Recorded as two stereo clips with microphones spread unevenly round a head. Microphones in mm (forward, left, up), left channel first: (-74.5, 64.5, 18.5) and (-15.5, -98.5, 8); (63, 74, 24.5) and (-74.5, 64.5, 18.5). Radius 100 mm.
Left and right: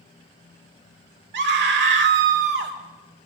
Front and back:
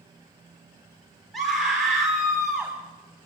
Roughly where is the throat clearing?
No throat clearing in this recording.